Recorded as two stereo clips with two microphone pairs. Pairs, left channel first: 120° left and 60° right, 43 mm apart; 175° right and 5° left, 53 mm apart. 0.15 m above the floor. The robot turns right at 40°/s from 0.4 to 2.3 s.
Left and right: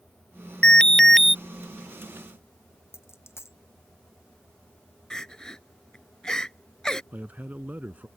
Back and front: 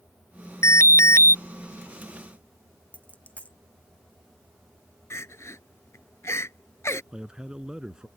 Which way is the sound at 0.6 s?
Straight behind.